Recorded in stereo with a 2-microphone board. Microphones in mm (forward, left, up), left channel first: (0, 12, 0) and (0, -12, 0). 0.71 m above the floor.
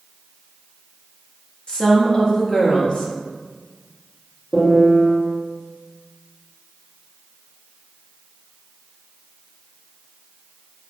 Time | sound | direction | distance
1.7 | a woman speaking | 40° left (ahead or behind) | 0.6 m
4.5 | a piano | 25° left (ahead or behind) | 1.2 m